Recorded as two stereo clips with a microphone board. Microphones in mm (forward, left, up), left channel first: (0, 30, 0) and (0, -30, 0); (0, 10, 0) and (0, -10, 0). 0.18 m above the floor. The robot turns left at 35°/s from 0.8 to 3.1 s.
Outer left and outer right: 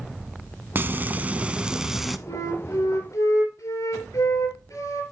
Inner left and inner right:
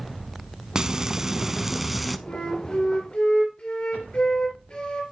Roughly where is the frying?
Behind right.